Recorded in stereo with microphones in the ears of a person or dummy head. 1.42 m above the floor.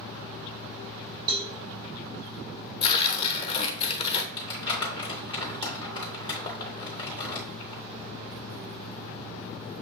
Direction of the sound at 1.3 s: 25° right (ahead or behind).